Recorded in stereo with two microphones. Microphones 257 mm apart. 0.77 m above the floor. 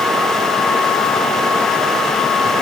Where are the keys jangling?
No keys jangling in this recording.